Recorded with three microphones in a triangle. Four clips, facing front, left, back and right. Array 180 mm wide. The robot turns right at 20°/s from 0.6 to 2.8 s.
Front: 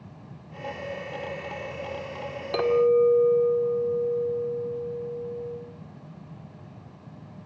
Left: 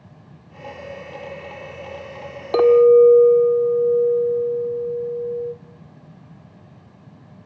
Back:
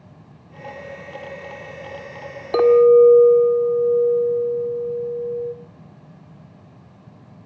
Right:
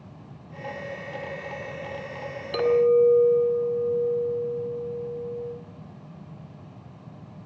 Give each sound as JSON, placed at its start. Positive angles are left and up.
{"t": 2.5, "sound": "a clink", "azimuth_deg": 125, "distance_m": 2.0}